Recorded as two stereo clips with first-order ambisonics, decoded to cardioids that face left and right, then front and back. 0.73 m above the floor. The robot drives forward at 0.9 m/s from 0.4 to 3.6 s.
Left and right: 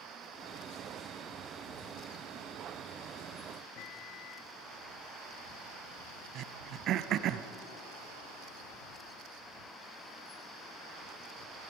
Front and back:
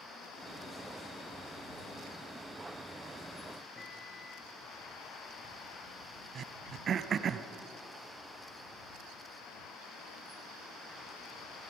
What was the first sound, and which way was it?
A microwave, 75° left.